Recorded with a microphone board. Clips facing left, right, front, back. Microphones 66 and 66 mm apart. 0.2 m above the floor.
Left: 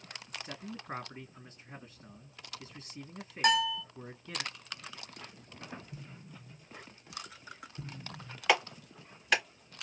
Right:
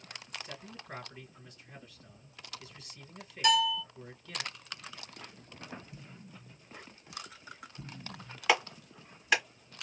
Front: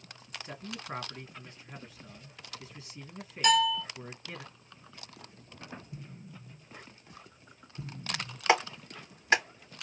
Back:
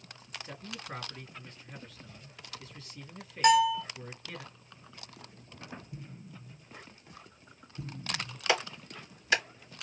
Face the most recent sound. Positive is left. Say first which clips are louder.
# even, front 4 dB
turn(degrees=-5)